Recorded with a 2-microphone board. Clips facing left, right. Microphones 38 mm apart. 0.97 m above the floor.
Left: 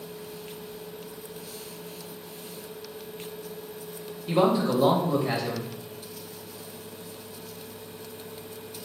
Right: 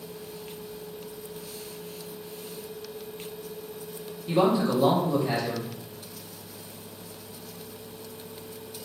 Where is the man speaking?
20° left (ahead or behind), 1.5 m.